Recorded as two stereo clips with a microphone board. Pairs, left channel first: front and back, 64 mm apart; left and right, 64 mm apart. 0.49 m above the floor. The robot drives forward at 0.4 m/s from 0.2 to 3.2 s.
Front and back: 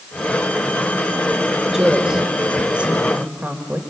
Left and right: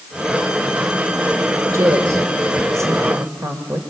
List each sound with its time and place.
1.7 s a woman speaking: 95° right, 1.9 m; by 3.8 s 115° right, 2 m